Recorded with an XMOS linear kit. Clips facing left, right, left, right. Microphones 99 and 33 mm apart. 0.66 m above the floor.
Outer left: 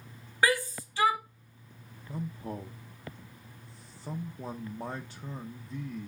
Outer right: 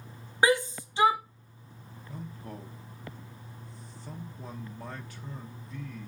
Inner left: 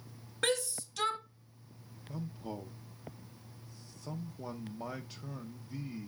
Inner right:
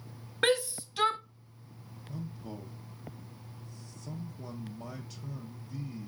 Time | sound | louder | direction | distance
0.4 | a shout | outer right 3 dB, inner right 5 dB | 20° right (ahead or behind) | 0.6 m
2.1 | a man speaking | outer left 5 dB, inner left 1 dB | 25° left (ahead or behind) | 0.7 m